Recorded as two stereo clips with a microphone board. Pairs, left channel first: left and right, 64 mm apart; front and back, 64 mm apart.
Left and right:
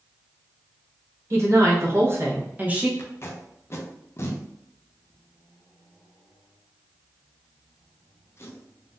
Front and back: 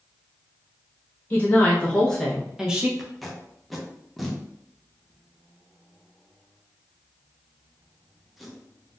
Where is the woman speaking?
55° right, 1.2 m; by 2.9 s 135° right, 0.8 m.